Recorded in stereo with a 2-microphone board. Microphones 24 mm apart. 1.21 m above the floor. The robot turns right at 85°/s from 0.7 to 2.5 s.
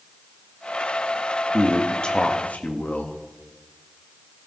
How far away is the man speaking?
About 1.5 m.